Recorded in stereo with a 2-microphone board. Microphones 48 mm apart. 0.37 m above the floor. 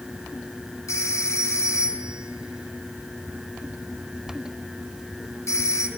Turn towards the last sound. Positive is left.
turn(degrees=75)  # may be behind; listen again after turning